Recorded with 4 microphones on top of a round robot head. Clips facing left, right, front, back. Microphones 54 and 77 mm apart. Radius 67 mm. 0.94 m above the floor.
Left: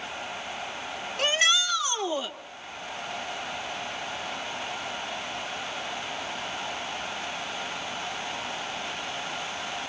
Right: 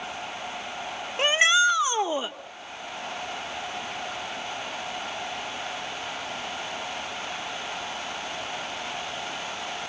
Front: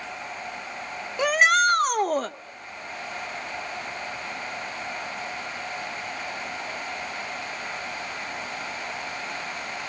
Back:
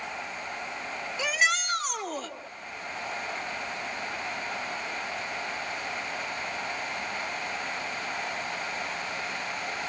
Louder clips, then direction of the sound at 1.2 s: Right 5 dB, front 8 dB; 30° right.